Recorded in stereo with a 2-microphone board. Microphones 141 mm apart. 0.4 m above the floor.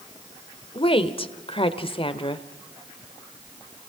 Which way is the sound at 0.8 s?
40° left (ahead or behind).